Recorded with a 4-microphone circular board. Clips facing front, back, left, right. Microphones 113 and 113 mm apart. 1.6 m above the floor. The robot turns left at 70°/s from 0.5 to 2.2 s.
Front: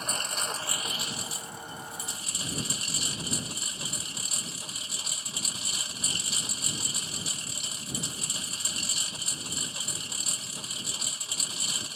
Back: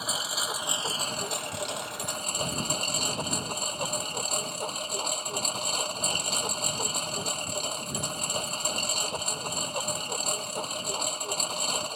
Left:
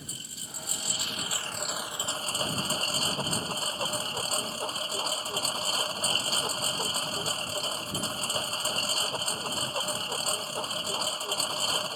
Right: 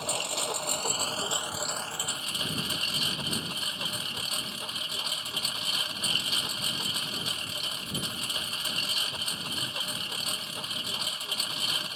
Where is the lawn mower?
95° right; by 12.0 s 145° left.